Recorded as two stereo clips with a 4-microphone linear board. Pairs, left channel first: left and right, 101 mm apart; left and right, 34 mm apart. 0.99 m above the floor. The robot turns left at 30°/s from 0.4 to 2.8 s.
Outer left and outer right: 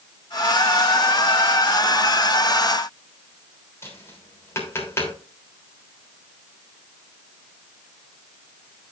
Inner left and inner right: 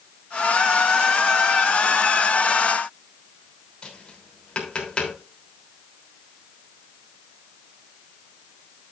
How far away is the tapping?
About 3 m.